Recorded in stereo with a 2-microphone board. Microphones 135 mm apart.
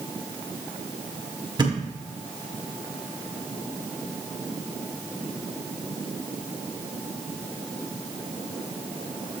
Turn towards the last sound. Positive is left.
turn(degrees=-35)  # may be behind; listen again after turning